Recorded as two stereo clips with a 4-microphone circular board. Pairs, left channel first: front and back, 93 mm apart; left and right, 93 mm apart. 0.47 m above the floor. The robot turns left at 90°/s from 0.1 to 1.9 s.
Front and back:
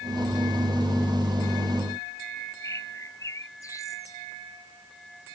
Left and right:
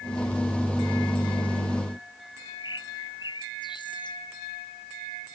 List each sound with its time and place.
2.6 s a bird: 55° left